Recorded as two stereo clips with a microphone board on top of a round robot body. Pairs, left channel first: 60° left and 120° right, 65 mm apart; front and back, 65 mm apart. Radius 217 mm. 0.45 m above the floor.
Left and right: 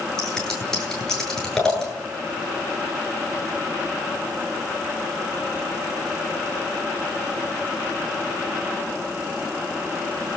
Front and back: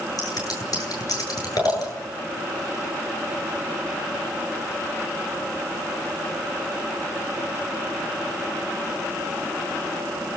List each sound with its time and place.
0.2 s scissors: 20° right, 10 m